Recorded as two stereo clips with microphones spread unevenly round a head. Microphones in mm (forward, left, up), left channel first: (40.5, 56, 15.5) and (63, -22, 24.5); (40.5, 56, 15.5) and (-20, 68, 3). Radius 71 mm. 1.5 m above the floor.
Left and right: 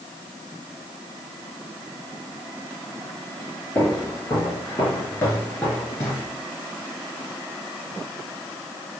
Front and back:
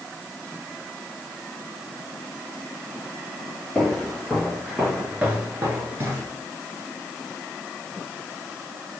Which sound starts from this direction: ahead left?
Footsteps, at 3.8 s.